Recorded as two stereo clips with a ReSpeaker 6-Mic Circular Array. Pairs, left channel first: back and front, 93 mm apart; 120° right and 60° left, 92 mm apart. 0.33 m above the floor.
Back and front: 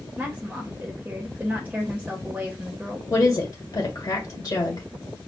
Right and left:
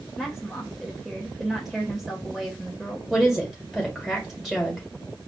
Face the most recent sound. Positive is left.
turn(degrees=145)